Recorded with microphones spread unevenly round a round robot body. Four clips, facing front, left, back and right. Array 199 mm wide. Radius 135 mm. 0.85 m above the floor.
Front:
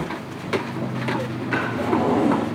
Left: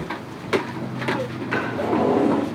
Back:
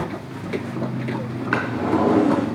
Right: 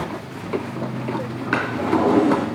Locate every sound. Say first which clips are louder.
1.5 s a drawer: right 2 dB, back 1 dB; 135° right, 4.5 m